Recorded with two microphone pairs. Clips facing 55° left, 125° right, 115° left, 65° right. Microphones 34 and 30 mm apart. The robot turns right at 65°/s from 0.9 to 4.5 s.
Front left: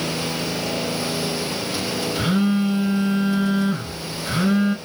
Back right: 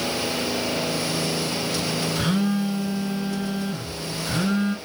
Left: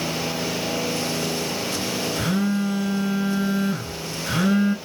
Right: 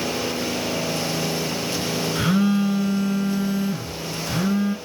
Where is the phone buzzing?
25° right, 2.5 m; by 4.8 s 125° left, 2.5 m.